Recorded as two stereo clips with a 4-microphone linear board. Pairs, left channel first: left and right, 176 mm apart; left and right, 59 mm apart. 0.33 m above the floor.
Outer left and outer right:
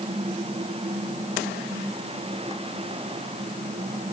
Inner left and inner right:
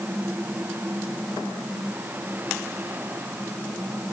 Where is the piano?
I don't hear a piano.